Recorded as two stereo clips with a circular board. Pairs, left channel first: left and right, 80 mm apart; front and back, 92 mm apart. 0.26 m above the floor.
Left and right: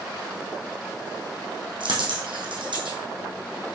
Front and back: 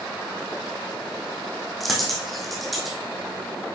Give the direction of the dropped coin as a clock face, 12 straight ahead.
3 o'clock.